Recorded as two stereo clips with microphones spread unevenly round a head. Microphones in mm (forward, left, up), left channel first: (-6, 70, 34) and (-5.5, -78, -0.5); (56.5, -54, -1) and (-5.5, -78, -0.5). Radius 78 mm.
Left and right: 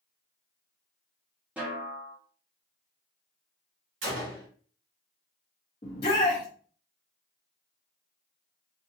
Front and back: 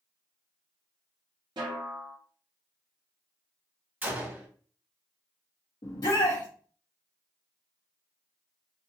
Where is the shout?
40° left, 1.0 m.